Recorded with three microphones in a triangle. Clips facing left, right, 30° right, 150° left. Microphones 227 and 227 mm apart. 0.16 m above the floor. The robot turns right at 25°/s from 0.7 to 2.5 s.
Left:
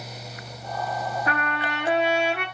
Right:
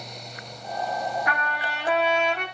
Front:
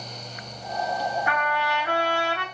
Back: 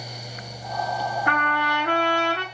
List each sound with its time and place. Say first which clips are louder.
1.3 s a trumpet: left 3 dB, back 1 dB; 140° left, 0.6 m; by 2.5 s 170° left, 0.6 m